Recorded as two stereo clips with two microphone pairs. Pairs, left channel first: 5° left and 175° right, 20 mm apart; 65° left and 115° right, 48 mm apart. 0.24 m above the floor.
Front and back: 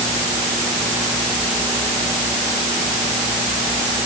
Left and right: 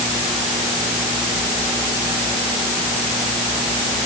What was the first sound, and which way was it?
Only background noise.